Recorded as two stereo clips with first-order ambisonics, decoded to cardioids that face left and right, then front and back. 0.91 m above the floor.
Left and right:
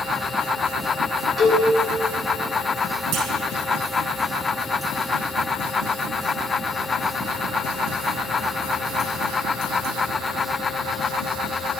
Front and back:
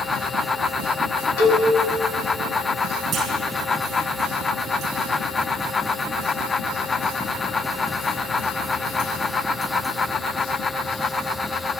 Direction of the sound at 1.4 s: 15° right.